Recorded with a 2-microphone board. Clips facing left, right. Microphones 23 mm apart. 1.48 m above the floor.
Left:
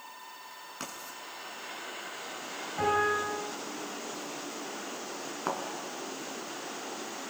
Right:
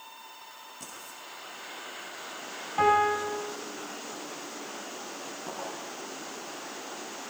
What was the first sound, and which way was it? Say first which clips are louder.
Writing: left 4 dB; 60° left (ahead or behind).